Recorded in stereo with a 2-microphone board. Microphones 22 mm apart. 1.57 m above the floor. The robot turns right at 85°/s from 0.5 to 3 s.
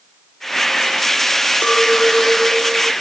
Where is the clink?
90° left; by 2.9 s 160° right.